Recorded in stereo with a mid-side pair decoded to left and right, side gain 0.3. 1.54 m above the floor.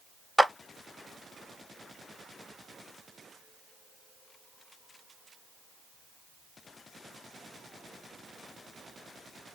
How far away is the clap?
About 0.8 m.